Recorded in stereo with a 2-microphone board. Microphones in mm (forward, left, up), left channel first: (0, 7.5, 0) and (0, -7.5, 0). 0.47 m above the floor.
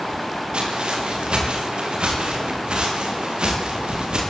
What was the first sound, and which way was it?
Footsteps, 70° right (ahead or behind).